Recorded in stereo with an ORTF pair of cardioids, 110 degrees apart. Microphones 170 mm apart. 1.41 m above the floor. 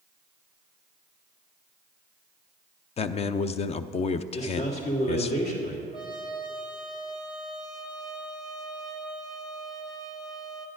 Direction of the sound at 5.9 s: 25° left.